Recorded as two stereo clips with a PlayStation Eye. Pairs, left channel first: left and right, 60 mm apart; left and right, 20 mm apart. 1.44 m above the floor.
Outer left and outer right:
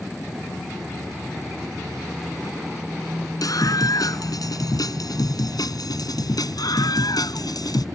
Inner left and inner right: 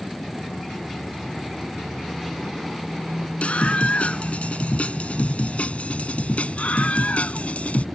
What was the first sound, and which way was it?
A scream, 70° left (ahead or behind).